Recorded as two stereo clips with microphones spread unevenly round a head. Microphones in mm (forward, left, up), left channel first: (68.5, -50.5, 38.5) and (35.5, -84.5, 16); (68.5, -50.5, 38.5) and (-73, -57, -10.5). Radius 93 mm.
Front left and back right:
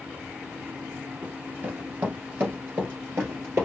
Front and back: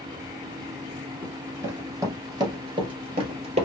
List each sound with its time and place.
1.2 s running footsteps: 65° right, 1.9 m; by 3.6 s 140° left, 1.8 m